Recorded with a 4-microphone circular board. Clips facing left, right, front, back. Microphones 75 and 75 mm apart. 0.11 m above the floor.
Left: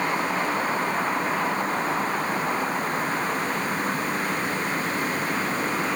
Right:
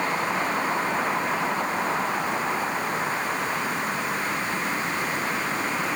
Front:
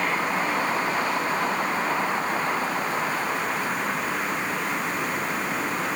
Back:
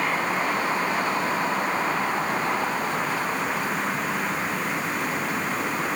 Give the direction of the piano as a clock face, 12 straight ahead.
No piano in this recording.